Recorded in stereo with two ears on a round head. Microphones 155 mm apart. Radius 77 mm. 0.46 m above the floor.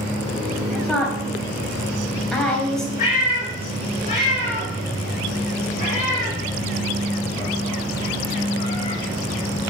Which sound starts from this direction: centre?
A woman speaking, at 0.7 s.